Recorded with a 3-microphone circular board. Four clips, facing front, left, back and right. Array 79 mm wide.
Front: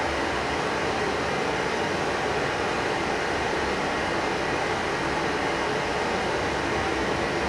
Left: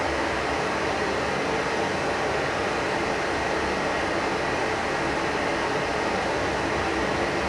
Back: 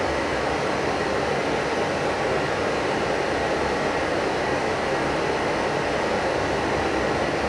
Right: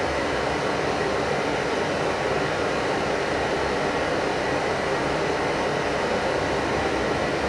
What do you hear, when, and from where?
0.0 s running water: 150° right, 0.9 m